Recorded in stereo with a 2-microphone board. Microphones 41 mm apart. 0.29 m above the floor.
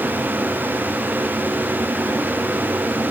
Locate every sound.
Only background noise.